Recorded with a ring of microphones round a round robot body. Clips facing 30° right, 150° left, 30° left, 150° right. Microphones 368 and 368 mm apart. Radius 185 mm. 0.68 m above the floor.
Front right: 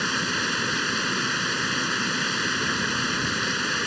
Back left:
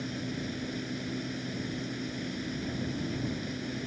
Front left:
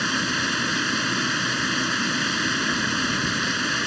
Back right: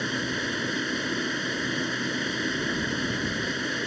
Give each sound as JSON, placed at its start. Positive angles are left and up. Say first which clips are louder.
{"t": 0.0, "sound": "running water", "louder": "front right 4 dB, front left 2 dB", "azimuth_deg": -25}